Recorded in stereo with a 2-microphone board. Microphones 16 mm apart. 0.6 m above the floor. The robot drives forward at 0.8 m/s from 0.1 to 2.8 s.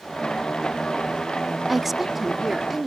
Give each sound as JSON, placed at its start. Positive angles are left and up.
{"t": 1.7, "sound": "a woman speaking", "side_deg": -10}